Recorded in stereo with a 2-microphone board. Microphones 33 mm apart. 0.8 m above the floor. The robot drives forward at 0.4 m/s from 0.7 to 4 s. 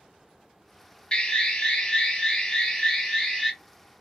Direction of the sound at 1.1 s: 30° left (ahead or behind).